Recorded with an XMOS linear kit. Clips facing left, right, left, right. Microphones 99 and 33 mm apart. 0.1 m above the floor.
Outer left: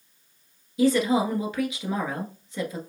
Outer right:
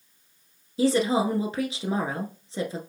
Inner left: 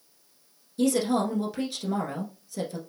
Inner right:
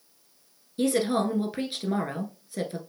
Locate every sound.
0.8 s a woman speaking: 30° right (ahead or behind), 1.2 m